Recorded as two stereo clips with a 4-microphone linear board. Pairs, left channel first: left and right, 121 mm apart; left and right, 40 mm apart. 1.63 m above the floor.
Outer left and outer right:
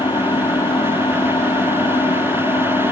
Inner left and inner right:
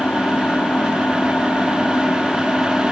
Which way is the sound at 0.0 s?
40° left (ahead or behind).